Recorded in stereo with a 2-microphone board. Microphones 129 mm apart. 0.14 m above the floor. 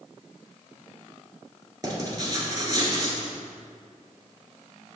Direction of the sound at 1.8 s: 30° right (ahead or behind).